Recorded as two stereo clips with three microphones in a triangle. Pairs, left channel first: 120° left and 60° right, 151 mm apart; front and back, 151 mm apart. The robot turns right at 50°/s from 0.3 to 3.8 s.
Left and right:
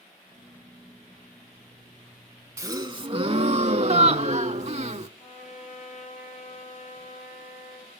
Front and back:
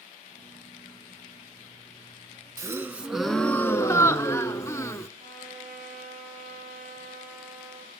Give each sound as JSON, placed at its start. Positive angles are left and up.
{"t": 2.6, "sound": "a gasp", "azimuth_deg": -125, "distance_m": 0.5}
{"t": 5.2, "sound": "a trumpet", "azimuth_deg": 155, "distance_m": 4.5}